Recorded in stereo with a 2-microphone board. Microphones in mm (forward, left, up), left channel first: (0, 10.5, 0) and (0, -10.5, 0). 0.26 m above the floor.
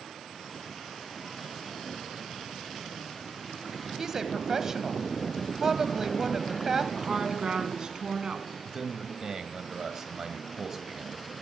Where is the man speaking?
25° right (ahead or behind), 1.6 m.